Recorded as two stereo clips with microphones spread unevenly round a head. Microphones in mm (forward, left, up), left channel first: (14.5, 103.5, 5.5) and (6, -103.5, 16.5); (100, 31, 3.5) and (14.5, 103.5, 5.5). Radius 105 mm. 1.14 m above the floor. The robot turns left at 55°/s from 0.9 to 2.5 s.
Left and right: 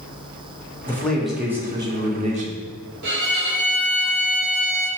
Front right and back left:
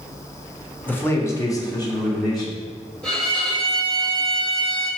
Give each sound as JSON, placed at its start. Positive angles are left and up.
{"t": 0.9, "sound": "a man speaking", "azimuth_deg": 20, "distance_m": 0.6}
{"t": 3.0, "sound": "a violin", "azimuth_deg": -125, "distance_m": 0.6}